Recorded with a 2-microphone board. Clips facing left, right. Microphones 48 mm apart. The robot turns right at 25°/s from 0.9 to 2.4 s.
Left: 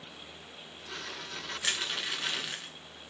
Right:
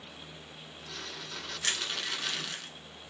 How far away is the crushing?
About 0.8 m.